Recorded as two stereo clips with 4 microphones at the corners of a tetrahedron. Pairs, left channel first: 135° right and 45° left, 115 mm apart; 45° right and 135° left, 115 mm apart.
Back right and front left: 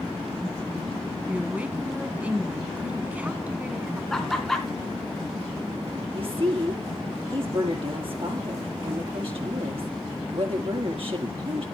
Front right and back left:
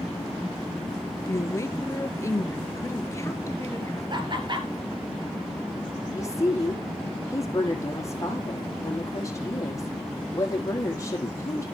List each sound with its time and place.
1.3 s a woman speaking: 20° right, 1.6 m
4.1 s laughter: 140° left, 2 m
6.1 s a woman speaking: 15° left, 3.5 m